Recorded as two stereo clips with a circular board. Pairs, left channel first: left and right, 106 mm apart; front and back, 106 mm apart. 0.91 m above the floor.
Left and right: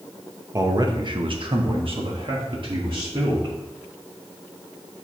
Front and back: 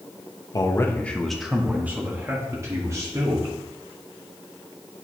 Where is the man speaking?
40° right, 1.0 m; by 3.5 s 125° right, 2.5 m.